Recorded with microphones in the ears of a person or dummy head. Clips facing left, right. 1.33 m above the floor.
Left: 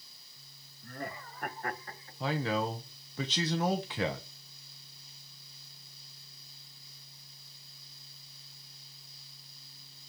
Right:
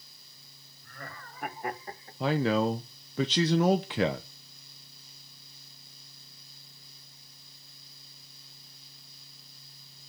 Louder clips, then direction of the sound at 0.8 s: Left 5 dB; 30° left (ahead or behind).